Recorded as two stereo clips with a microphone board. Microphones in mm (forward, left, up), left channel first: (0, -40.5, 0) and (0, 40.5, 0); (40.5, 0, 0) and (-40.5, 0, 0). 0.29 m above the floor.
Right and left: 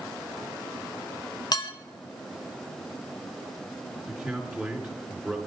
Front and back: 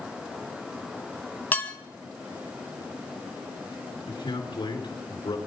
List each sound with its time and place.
1.5 s dishes clattering: 65° right, 1.2 m
4.1 s a man speaking: straight ahead, 4 m